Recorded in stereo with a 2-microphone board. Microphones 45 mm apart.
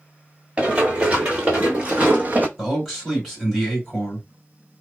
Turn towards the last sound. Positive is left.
turn(degrees=0)  # may be behind; listen again after turning